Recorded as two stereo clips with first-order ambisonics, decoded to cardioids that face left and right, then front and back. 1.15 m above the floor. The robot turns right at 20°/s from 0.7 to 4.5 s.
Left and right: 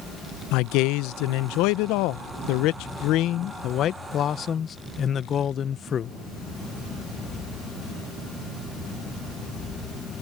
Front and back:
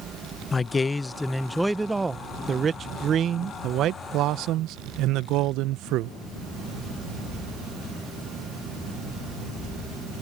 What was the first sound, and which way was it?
A man speaking, 75° left.